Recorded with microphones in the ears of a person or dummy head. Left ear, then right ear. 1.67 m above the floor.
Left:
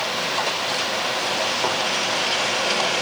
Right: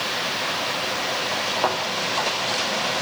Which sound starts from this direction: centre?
A thud, at 1.6 s.